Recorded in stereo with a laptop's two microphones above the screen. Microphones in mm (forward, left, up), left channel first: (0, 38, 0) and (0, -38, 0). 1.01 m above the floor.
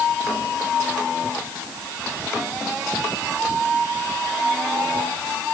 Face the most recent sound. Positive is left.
No sound to turn to.